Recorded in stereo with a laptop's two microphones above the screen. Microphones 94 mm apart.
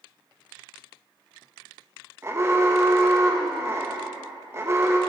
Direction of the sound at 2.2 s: 30° right (ahead or behind).